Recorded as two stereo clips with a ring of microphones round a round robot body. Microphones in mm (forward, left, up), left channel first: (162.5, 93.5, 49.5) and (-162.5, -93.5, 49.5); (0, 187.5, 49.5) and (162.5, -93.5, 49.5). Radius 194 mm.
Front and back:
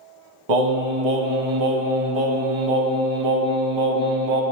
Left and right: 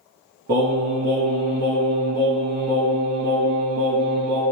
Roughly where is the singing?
Behind right.